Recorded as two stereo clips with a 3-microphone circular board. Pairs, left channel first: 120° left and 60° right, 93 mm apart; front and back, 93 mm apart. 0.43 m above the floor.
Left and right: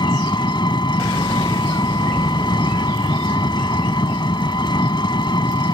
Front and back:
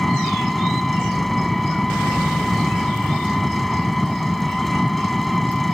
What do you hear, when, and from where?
0.0 s an engine running: 90° left